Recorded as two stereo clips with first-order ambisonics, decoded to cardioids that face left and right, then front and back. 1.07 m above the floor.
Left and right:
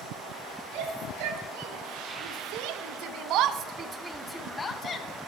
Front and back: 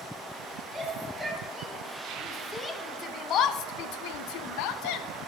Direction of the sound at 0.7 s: 95° right.